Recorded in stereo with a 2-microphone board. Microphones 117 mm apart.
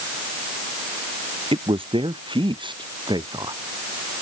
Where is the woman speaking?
50° right (ahead or behind); by 3.6 s 40° right (ahead or behind).